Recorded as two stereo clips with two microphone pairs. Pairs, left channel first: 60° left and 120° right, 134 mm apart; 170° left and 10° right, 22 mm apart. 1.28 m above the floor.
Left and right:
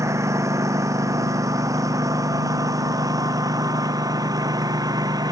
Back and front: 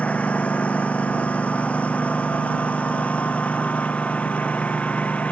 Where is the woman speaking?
No woman speaking in this recording.